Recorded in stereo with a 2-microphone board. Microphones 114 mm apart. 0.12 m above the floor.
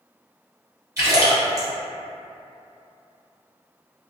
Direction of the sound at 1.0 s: 30° right (ahead or behind).